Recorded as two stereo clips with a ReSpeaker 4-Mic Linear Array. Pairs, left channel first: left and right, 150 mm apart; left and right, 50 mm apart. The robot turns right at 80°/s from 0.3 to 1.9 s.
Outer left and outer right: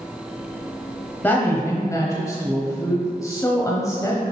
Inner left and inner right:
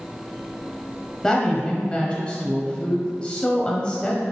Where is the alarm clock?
No alarm clock in this recording.